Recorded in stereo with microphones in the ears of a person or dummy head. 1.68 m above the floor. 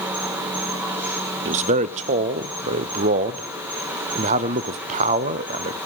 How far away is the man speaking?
About 0.5 m.